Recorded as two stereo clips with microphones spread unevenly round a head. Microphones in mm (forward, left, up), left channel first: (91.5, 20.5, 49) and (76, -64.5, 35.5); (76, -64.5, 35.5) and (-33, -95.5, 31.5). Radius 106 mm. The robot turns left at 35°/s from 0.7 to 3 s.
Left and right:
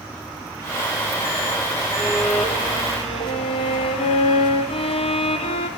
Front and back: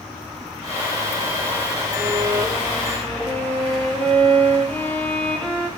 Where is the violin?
135° left, 1.3 m; by 5.7 s 100° left, 1.3 m.